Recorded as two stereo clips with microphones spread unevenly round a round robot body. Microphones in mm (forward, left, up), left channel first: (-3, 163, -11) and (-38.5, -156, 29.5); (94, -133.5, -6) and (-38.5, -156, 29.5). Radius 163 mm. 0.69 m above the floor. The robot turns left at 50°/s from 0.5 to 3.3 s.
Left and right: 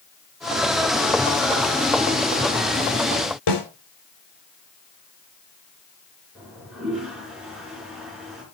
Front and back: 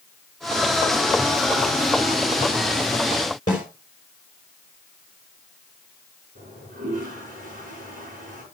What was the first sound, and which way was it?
A snare drum, 75° left.